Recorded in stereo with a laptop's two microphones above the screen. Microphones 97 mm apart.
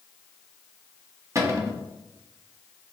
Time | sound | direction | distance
1.4 | a cupboard door | 30° right (ahead or behind) | 0.9 m